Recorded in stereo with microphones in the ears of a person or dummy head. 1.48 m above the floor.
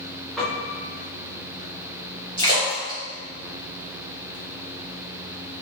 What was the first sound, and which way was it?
A piano, centre (ahead or behind).